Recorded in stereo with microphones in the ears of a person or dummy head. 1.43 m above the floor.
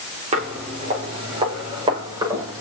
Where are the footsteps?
40° right (ahead or behind), 4.5 m; by 2.6 s 20° right (ahead or behind), 6 m.